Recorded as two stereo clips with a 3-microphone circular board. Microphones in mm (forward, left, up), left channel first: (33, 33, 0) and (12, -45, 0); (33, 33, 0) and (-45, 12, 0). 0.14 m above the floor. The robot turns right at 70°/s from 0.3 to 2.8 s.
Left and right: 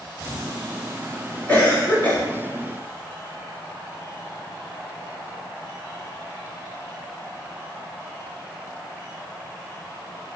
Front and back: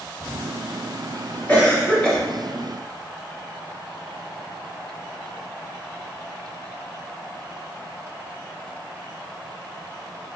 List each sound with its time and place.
1.5 s a cough: 40° left, 1.0 m; by 2.2 s 90° left, 1.0 m